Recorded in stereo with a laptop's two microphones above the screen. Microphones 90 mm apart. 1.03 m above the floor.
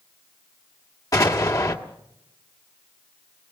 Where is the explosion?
40° left (ahead or behind), 1.9 m.